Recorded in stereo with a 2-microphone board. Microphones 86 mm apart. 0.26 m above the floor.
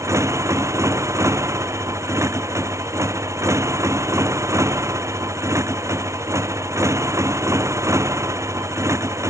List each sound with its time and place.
0.0 s a motorcycle: 35° right (ahead or behind)